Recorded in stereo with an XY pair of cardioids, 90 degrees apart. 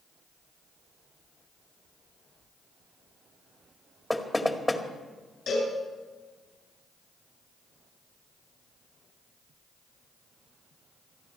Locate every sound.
4.1 s knocking: 15° left, 1.9 m
5.5 s a cowbell: 70° left, 9 m